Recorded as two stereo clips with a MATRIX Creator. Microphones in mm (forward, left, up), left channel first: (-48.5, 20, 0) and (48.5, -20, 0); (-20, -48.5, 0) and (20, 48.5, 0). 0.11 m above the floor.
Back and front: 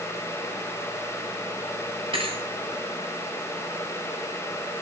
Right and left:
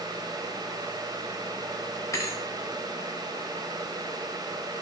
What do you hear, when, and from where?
2.1 s a thud: 50° right, 6.5 m